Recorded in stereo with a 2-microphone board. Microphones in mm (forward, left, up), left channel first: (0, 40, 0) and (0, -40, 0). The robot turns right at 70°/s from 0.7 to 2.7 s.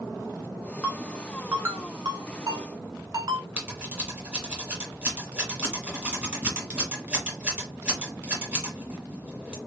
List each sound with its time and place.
0.8 s a ringtone: 15° left (ahead or behind), 1.0 m; by 3.5 s 55° right (ahead or behind), 1.0 m
3.6 s scissors: 20° right (ahead or behind), 2.0 m